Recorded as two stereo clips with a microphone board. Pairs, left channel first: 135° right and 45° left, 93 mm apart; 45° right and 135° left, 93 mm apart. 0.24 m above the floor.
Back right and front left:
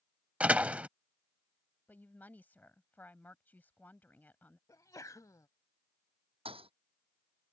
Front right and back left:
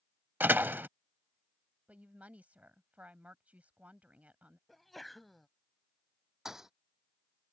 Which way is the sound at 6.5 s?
50° left.